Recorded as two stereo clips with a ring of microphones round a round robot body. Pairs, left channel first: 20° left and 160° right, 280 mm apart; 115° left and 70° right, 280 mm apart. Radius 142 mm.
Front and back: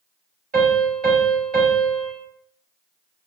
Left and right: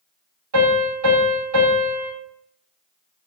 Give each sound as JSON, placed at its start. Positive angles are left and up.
{"t": 0.5, "sound": "a piano", "azimuth_deg": -95, "distance_m": 2.5}